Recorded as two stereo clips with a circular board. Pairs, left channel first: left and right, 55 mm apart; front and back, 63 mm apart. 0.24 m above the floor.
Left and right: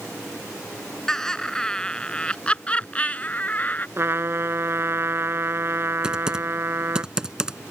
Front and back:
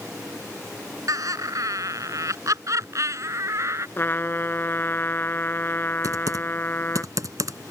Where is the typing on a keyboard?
165° right.